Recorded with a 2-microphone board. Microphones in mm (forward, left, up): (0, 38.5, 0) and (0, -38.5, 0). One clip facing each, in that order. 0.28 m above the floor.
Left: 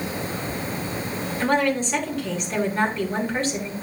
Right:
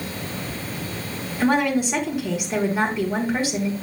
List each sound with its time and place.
1.4 s a woman speaking: 15° right (ahead or behind), 3.5 m